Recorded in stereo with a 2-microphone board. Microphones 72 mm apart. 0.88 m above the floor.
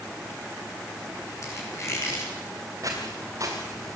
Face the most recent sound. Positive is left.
turn(degrees=-50)  # may be behind; listen again after turning